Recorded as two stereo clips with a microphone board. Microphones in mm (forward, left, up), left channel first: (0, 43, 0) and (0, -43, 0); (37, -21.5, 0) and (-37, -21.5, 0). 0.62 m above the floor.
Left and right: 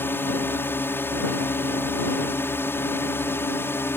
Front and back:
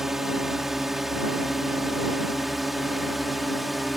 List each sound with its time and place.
0.0 s a drone: 100° left; by 4.0 s 95° left